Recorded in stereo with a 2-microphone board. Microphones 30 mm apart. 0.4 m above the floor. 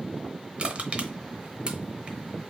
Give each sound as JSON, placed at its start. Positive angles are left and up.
{"t": 0.6, "sound": "crushing", "side_deg": -40, "distance_m": 0.7}